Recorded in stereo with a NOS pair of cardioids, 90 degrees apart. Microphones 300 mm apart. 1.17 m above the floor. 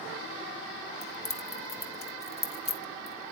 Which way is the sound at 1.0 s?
20° left.